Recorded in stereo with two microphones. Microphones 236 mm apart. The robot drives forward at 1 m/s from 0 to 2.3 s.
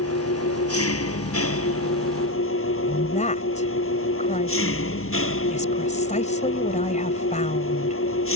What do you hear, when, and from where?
0.0 s an engine running: 80° left; by 8.4 s 65° left (ahead or behind)
2.9 s a woman speaking: 30° left (ahead or behind)